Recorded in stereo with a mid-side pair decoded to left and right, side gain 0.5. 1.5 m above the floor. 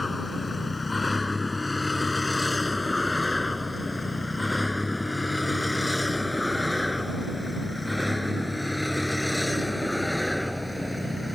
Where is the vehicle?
20° left; by 11.3 s 5° left.